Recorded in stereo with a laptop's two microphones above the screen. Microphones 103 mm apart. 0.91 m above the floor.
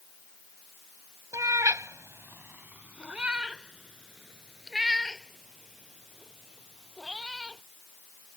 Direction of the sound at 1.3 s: 35° right (ahead or behind).